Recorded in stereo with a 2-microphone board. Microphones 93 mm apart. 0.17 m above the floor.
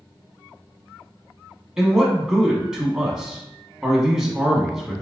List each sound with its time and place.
1.8 s a man speaking: 5° right (ahead or behind), 1.0 m